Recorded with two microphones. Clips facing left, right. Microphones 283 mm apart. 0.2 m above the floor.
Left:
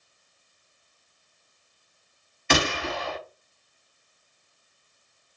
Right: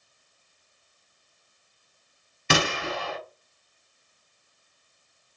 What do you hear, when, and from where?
2.5 s a gunshot: 40° right (ahead or behind), 2 m